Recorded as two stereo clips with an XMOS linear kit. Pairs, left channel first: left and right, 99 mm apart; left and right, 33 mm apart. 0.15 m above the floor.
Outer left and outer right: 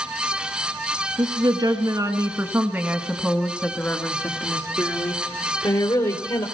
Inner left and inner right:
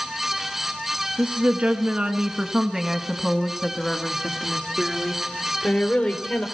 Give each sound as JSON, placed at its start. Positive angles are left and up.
{"t": 1.2, "sound": "a woman speaking", "side_deg": -50, "distance_m": 1.7}